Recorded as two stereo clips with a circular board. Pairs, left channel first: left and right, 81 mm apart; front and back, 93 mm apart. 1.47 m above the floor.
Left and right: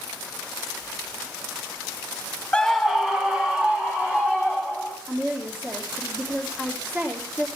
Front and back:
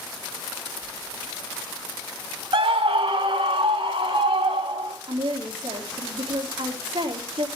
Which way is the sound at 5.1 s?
160° right.